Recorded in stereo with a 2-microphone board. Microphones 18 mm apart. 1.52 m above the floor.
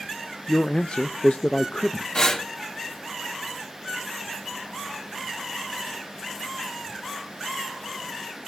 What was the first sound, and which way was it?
A man speaking, 70° left (ahead or behind).